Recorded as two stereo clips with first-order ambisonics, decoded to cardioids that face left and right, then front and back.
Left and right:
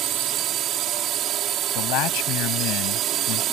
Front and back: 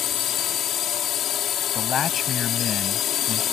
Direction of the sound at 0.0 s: 50° right.